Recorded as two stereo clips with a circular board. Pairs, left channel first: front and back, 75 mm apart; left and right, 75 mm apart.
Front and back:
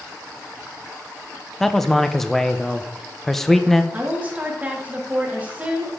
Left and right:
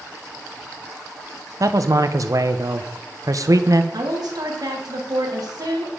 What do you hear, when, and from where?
1.6 s a man speaking: 85° right, 0.7 m
3.9 s a woman speaking: 110° right, 1.8 m